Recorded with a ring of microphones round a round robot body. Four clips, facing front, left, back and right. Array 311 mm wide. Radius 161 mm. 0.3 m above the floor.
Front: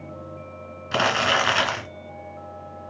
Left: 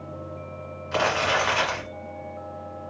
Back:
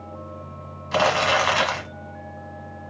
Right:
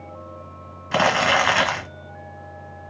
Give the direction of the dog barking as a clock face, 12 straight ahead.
I don't hear a dog barking.